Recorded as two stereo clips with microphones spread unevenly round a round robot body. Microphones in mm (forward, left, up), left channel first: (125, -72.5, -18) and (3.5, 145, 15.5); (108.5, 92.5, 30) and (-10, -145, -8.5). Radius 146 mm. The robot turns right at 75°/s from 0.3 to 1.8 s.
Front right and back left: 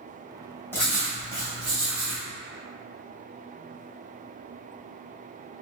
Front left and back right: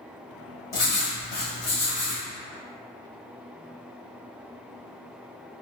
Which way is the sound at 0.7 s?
20° left.